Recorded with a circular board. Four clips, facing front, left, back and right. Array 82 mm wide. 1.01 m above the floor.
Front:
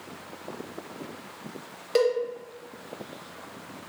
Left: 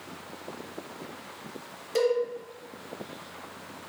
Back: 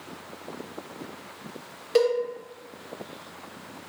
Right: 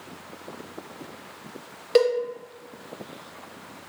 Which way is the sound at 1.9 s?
85° right.